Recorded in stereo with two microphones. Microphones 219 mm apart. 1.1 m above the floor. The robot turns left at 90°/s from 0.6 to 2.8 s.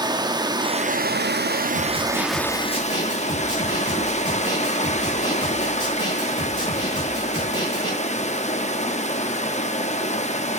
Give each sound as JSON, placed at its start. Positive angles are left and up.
{"t": 0.0, "sound": "running water", "azimuth_deg": -25, "distance_m": 0.8}
{"t": 1.8, "sound": "a snare drum", "azimuth_deg": 115, "distance_m": 3.0}